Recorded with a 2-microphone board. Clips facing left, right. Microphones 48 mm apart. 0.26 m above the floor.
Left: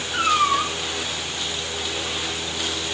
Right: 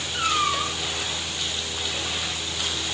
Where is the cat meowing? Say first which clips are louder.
Left 5 dB; 65° left (ahead or behind), 4 m.